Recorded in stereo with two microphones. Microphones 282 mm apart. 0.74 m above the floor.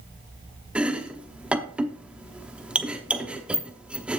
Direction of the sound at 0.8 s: 5° right (ahead or behind).